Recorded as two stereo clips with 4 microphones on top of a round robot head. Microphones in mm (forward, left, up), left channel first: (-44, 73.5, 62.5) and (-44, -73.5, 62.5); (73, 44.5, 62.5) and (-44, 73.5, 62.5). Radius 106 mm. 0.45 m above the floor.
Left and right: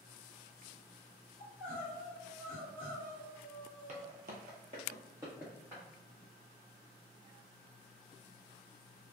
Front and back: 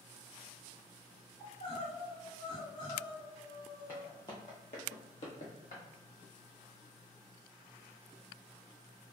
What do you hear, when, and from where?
1.4 s crying: 10° left, 1.8 m
3.9 s footsteps: 115° right, 0.6 m; by 5.8 s 5° right, 1.2 m